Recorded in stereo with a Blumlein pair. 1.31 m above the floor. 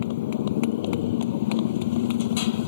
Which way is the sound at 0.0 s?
55° left.